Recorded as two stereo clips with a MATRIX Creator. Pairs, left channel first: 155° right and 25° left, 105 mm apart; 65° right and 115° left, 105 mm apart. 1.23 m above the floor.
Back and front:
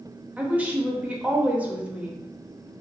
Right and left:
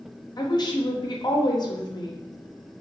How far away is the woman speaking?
About 0.5 m.